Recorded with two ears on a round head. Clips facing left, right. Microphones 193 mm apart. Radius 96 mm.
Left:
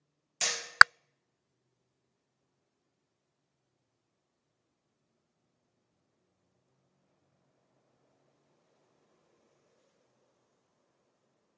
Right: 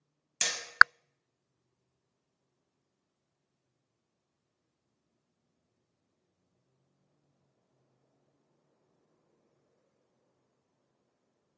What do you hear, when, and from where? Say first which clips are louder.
0.4 s hammering: left 2 dB; 25° right (ahead or behind), 0.8 m